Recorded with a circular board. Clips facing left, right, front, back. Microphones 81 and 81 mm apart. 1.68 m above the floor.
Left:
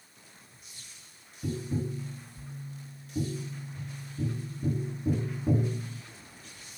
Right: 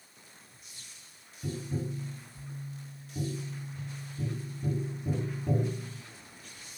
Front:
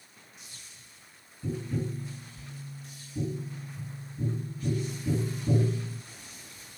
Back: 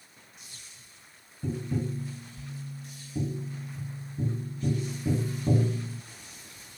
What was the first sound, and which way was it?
Tapping, 170° left.